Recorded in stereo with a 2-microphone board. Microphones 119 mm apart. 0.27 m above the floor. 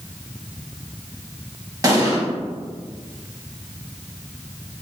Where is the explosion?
30° right (ahead or behind), 0.8 m.